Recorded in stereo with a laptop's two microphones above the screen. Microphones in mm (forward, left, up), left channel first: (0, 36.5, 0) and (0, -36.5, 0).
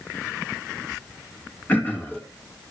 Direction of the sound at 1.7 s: 25° left (ahead or behind).